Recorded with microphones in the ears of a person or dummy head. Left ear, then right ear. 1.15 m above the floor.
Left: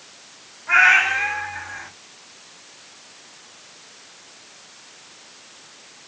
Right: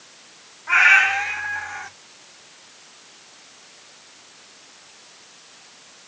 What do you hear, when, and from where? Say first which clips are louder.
0.7 s a cat meowing: even; 20° right (ahead or behind), 1.3 m; by 1.9 s 50° right (ahead or behind), 1.0 m